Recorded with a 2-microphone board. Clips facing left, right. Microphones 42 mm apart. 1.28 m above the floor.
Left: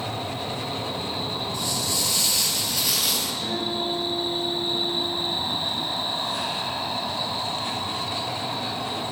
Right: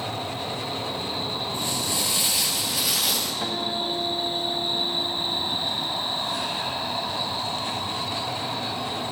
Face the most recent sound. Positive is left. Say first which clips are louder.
# even
turn(degrees=-35)  # may be behind; listen again after turning